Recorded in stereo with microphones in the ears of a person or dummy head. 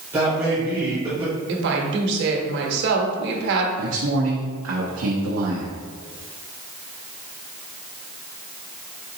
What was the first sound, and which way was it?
A man speaking, 15° right (ahead or behind).